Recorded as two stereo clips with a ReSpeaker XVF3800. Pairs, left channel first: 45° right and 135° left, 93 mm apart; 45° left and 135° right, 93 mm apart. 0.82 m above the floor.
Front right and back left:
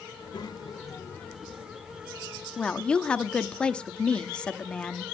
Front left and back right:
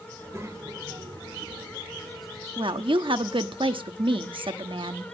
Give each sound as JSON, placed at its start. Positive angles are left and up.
{"t": 0.1, "sound": "a child speaking", "azimuth_deg": -70, "distance_m": 2.0}
{"t": 2.6, "sound": "a woman speaking", "azimuth_deg": -125, "distance_m": 1.1}